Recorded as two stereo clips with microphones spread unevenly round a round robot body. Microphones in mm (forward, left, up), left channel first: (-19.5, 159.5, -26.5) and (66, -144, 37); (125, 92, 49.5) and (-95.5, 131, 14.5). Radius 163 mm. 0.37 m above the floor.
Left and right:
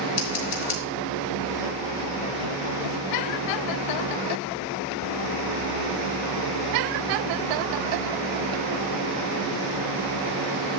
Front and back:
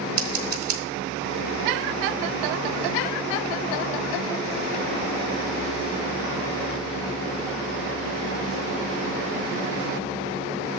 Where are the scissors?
160° left, 3 m.